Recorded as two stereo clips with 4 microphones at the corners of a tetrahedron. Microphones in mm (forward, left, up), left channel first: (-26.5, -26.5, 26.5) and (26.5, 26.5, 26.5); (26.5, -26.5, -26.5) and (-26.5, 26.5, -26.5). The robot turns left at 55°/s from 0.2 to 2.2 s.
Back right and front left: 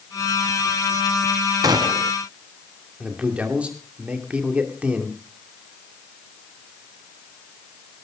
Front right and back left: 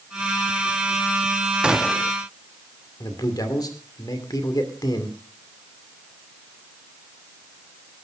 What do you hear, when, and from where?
1.6 s a gunshot: 60° left, 0.7 m; by 2.1 s 30° left, 0.7 m
3.0 s a man speaking: 30° right, 2.5 m